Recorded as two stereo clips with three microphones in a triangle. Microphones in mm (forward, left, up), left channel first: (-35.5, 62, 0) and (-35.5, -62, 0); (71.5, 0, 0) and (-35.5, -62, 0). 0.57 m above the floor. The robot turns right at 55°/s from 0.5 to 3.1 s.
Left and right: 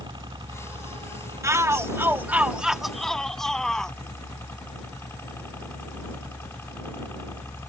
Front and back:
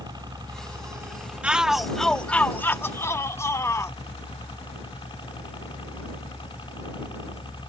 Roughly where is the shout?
Right.